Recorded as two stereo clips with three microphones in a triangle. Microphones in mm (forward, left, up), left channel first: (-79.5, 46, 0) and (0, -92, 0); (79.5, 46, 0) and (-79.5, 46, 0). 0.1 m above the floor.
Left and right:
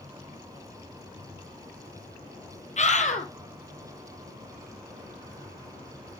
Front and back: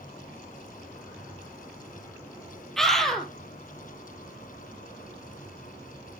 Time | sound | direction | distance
2.8 | a scream | 90° left | 2 m